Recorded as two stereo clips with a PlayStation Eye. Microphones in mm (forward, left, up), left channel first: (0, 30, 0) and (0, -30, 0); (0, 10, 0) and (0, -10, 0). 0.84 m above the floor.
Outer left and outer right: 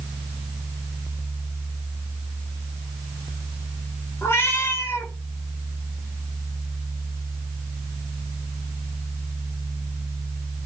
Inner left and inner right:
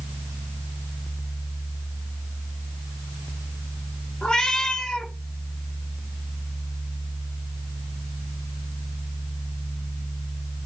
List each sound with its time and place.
4.2 s a cat meowing: 45° left (ahead or behind), 0.8 m